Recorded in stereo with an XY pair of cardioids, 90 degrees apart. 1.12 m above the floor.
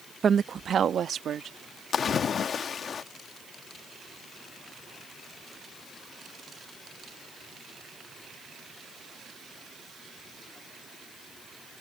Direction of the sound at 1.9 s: 60° left.